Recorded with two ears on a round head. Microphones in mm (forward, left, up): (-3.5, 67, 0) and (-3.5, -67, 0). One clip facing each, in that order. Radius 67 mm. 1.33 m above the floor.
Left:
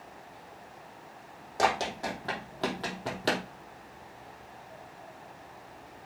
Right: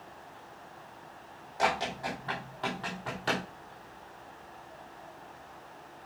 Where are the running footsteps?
55° left (ahead or behind), 4 m; by 3.4 s 45° left (ahead or behind), 3 m.